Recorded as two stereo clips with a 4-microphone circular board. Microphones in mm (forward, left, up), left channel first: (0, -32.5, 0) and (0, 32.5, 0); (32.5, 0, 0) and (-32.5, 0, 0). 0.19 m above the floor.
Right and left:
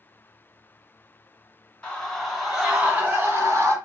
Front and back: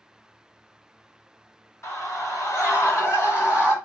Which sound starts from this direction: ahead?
A scream, at 1.8 s.